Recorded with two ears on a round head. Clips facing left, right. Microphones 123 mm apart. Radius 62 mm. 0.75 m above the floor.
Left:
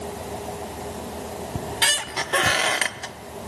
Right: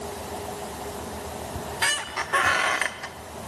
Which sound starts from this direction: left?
A squeak, at 1.6 s.